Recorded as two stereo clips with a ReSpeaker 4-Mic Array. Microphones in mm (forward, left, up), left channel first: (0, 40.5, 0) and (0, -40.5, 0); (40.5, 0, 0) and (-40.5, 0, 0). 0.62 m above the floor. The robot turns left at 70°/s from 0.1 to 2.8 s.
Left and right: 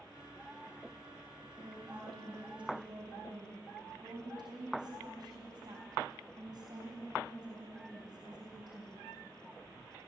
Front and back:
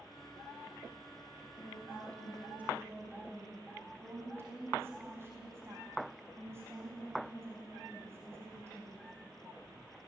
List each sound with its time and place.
1.6 s a woman speaking: 35° right, 5 m; by 9.1 s 120° right, 5 m